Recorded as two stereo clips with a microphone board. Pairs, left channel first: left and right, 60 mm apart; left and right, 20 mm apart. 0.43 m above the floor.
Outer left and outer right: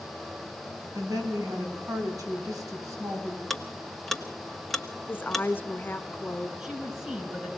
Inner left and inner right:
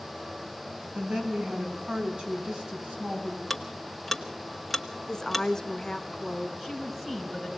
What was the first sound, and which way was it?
A woman speaking, 65° right (ahead or behind).